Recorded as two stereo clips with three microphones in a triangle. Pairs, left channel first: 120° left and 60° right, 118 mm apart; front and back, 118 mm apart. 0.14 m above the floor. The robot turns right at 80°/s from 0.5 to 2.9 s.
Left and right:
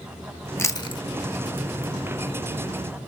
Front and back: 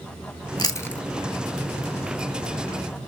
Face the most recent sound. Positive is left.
turn(degrees=-125)